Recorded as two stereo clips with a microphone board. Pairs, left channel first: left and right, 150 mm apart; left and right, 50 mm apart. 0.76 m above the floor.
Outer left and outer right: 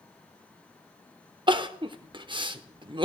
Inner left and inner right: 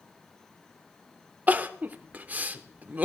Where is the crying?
35° right (ahead or behind), 0.6 m.